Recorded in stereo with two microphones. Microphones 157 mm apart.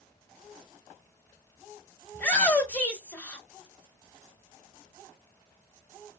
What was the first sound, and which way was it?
A shout, 10° left (ahead or behind).